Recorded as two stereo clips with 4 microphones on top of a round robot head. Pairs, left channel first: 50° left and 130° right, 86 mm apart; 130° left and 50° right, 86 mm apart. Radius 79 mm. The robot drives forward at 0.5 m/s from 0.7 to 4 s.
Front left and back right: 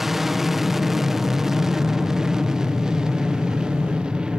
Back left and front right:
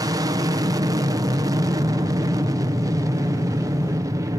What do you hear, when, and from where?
0.0 s an aircraft: 45° right; by 4.4 s 55° right